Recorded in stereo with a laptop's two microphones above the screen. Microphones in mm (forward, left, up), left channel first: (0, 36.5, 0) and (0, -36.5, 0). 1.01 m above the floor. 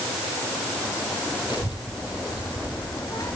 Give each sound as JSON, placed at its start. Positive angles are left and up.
{"t": 1.5, "sound": "a child speaking", "side_deg": 70, "distance_m": 3.0}